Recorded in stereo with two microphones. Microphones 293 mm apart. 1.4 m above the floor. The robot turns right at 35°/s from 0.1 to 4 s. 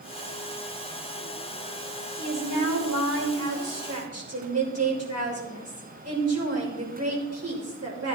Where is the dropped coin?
I don't hear a dropped coin.